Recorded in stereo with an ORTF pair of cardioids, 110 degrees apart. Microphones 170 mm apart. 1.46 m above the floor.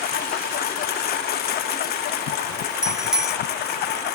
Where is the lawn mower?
70° left; by 4.2 s 80° left.